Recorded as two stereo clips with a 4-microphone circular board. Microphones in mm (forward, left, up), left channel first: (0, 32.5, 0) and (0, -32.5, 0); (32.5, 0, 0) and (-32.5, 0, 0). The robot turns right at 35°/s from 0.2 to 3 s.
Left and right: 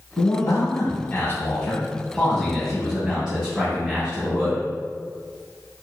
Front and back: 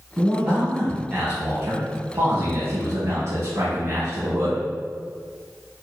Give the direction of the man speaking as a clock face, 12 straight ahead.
9 o'clock.